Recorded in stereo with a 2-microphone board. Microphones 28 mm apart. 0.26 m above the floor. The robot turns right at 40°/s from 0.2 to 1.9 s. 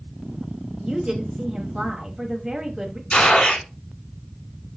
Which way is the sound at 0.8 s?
30° right (ahead or behind).